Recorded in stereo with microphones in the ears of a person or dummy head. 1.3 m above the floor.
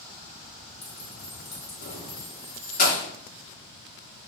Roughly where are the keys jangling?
Left.